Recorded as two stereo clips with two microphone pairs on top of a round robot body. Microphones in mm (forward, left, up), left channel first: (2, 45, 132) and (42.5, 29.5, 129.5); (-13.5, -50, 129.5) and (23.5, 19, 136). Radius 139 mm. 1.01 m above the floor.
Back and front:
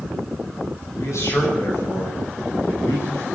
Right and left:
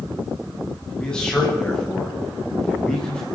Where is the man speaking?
160° left, 9.5 m.